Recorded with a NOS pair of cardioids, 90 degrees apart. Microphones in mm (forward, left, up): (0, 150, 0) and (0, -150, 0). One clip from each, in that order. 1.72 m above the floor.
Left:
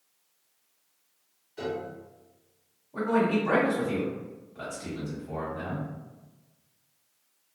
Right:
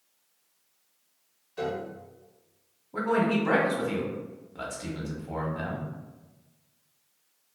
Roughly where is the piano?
Ahead.